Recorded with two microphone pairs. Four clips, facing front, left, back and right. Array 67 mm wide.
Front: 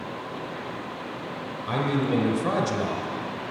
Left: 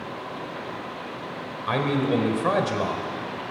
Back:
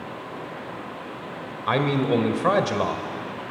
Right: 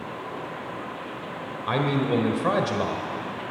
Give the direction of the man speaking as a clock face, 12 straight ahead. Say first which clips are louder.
Left 1 dB, back 4 dB; 6 o'clock.